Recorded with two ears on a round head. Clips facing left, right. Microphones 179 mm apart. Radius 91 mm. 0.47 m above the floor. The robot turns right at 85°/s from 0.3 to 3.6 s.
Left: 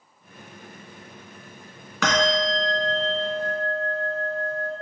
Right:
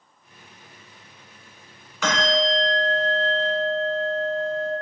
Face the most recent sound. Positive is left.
turn(degrees=-165)